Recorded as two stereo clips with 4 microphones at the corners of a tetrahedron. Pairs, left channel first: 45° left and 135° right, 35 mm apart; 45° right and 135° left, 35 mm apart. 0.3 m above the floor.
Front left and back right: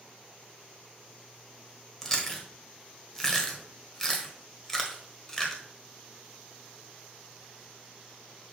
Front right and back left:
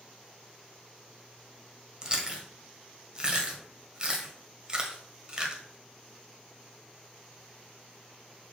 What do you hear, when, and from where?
2.0 s chewing: 105° left, 1.4 m